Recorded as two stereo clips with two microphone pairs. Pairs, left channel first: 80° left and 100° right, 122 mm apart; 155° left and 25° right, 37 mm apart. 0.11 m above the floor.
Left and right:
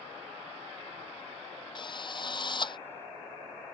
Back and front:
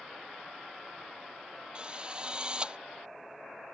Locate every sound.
1.8 s a drill: 35° left